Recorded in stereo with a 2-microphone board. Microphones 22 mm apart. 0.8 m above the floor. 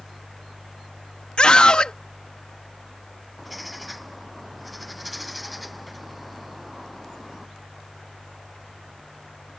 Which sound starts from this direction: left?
A scream, at 1.4 s.